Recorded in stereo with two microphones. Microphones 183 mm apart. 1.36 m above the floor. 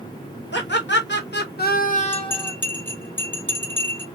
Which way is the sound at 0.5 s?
75° left (ahead or behind).